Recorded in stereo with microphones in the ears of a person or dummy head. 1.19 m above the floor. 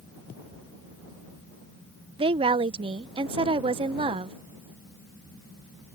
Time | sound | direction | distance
2.2 | a woman speaking | 25° right (ahead or behind) | ?